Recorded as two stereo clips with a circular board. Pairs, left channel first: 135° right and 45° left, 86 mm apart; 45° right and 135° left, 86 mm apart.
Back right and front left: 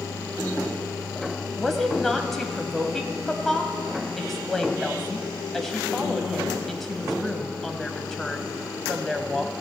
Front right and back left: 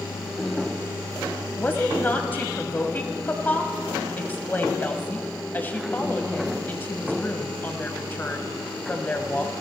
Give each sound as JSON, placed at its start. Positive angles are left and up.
{"t": 1.6, "sound": "a woman speaking", "azimuth_deg": -55, "distance_m": 1.1}